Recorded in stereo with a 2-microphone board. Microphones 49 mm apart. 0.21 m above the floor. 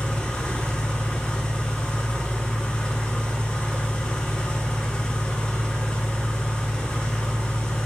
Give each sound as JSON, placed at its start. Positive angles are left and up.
{"t": 0.0, "sound": "an engine running", "side_deg": 30, "distance_m": 0.9}